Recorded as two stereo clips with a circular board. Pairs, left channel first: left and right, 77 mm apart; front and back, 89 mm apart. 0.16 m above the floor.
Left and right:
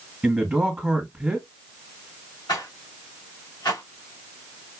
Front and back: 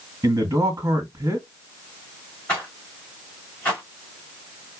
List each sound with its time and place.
0.2 s a man speaking: 160° right, 2.0 m
2.5 s a rattle: 65° left, 3.5 m